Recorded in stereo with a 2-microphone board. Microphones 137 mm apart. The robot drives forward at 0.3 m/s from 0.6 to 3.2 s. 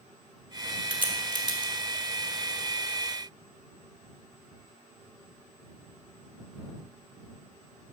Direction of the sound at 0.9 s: 40° right (ahead or behind).